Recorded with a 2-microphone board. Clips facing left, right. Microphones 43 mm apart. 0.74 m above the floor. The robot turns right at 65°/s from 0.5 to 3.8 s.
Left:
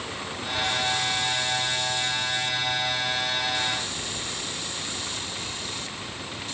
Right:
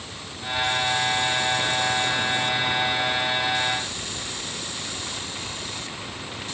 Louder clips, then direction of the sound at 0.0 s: Left 3 dB; 25° left (ahead or behind).